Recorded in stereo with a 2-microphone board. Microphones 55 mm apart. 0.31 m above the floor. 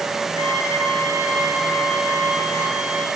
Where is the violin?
75° left (ahead or behind), 5 m.